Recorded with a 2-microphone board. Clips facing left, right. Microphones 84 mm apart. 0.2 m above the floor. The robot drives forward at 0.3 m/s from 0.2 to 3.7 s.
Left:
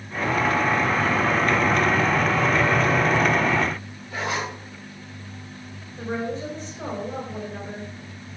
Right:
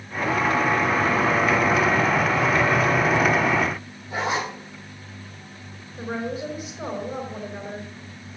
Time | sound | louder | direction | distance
4.1 | a zipper | right 2 dB | 25° right (ahead or behind) | 6 m
6.0 | a woman speaking | left 1 dB | 10° right (ahead or behind) | 4.5 m